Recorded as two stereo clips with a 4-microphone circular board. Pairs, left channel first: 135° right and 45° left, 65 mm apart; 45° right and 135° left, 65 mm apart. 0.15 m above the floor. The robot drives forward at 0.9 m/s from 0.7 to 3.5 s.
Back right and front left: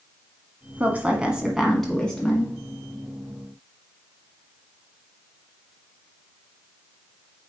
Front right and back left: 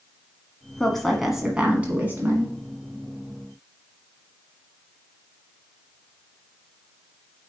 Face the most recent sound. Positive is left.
turn(degrees=170)